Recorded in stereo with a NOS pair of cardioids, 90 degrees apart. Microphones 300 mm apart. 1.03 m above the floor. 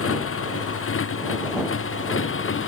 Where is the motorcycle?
50° left; by 2.7 s 45° left.